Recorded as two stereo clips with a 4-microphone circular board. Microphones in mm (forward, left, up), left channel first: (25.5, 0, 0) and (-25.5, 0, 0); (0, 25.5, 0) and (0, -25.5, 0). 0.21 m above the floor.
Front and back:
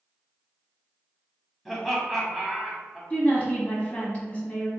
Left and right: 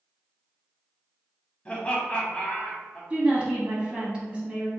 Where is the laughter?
85° left, 1.1 m.